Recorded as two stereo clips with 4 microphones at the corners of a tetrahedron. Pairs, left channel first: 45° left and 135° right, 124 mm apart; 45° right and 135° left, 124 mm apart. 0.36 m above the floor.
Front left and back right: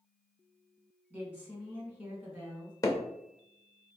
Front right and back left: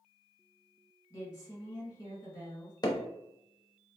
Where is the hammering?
10° right, 0.6 m.